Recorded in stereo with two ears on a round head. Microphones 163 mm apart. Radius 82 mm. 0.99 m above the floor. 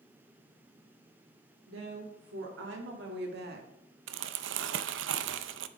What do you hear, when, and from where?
1.7 s a woman speaking: 85° right, 3 m; by 3.7 s 55° right (ahead or behind), 1.5 m
4.1 s crumpling: 75° right (ahead or behind), 0.6 m